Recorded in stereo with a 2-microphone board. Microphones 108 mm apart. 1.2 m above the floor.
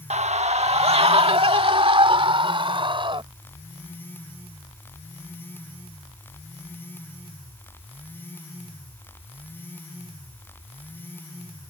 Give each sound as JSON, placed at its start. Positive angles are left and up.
{"t": 0.1, "sound": "a scream", "side_deg": -80}